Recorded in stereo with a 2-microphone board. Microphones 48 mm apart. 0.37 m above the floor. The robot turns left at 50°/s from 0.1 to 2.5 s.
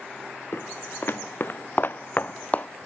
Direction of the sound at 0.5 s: 55° left (ahead or behind).